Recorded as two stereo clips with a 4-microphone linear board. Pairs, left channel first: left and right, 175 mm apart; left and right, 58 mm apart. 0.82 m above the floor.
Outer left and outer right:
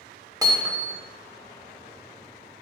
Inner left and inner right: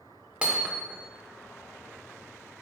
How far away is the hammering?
About 1.8 m.